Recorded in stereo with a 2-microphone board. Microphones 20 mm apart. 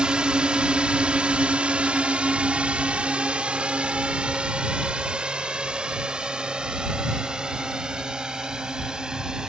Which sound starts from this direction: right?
A drone, at 0.0 s.